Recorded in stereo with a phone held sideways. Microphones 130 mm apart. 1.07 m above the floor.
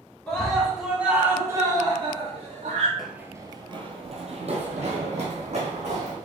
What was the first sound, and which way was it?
A scream, 10° left (ahead or behind).